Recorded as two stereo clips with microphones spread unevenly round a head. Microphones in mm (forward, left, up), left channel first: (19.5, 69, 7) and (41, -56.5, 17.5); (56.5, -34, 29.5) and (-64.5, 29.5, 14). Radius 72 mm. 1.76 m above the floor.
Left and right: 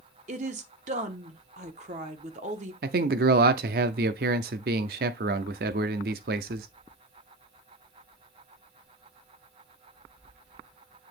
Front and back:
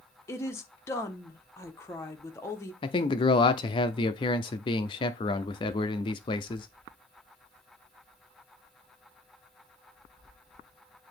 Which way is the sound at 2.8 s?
85° right.